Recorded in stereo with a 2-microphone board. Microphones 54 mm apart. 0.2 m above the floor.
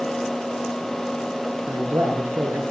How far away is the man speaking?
About 4 m.